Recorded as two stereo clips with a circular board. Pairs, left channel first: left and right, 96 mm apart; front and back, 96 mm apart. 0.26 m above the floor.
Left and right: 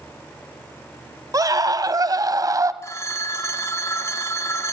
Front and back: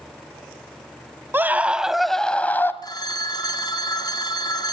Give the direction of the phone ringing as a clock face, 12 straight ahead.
11 o'clock.